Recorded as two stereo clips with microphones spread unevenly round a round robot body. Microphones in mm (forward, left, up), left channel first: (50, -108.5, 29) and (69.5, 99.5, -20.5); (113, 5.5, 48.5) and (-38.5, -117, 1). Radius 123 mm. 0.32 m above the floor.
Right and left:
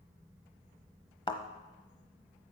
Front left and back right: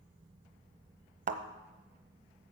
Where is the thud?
175° right, 0.9 m.